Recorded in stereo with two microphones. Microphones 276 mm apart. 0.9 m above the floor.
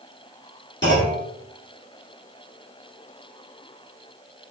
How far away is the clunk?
About 1.6 m.